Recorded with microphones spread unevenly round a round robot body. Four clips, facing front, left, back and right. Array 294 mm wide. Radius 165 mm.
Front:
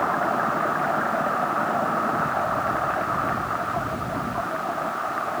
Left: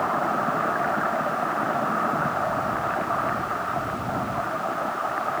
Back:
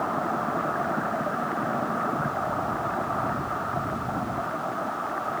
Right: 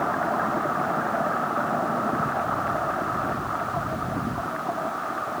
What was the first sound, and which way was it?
Only background noise.